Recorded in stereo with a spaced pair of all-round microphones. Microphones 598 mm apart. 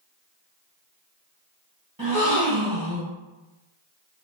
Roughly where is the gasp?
Right.